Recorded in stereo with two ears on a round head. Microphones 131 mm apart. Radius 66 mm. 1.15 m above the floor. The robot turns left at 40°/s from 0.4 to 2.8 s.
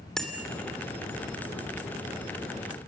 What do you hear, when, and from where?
0.2 s a bicycle bell: 5° left (ahead or behind), 2.5 m